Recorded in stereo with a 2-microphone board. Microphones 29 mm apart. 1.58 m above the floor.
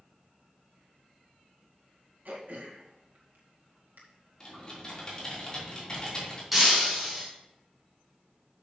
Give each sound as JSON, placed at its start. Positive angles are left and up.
{"t": 2.2, "sound": "throat clearing", "side_deg": -80, "distance_m": 2.0}
{"t": 4.4, "sound": "typing on a keyboard", "side_deg": 25, "distance_m": 3.0}
{"t": 6.5, "sound": "breaking glass", "side_deg": -5, "distance_m": 3.0}